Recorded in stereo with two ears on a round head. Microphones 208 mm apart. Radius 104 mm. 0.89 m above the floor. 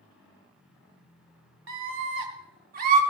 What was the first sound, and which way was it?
A scream, 60° right (ahead or behind).